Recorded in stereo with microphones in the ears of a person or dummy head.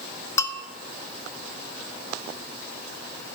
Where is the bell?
15° left (ahead or behind), 0.6 m.